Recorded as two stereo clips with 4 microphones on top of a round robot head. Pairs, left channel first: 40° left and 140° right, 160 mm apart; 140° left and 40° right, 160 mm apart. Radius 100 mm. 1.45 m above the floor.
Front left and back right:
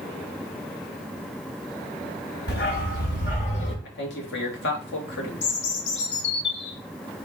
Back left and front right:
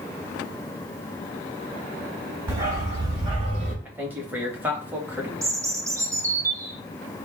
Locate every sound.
2.5 s a dog barking: 30° left, 2 m; by 3.8 s 10° right, 1.5 m
3.9 s a man speaking: 35° left, 1.6 m
5.4 s a bird: 30° left, 0.8 m